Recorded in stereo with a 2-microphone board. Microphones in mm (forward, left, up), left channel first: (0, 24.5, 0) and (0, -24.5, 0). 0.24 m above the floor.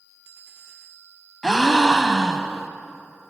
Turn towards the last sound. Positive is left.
turn(degrees=10)  # may be behind; listen again after turning